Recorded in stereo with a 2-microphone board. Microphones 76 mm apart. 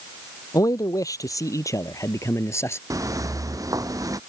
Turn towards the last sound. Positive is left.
turn(degrees=-50)  # may be behind; listen again after turning